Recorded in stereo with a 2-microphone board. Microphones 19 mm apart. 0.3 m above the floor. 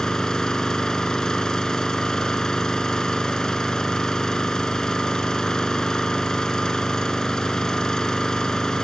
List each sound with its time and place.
0.0 s an engine running: 40° left (ahead or behind), 1.9 m